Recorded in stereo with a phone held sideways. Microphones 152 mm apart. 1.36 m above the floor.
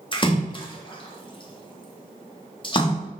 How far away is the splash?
About 0.6 m.